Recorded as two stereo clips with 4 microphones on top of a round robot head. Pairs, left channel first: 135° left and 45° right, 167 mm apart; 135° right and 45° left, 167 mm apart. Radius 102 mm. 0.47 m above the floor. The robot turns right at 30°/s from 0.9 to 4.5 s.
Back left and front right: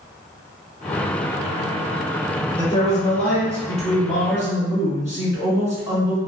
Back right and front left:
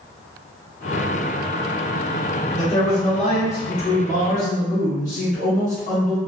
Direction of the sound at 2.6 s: 175° right.